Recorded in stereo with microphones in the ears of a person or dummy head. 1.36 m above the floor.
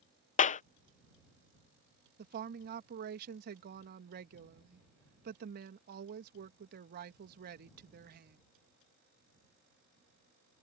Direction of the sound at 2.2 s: 55° right (ahead or behind).